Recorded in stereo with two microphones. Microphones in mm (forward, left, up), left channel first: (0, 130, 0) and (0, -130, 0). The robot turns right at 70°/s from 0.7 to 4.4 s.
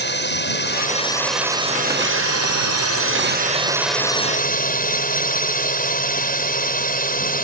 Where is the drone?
135° left; by 7.5 s 35° left.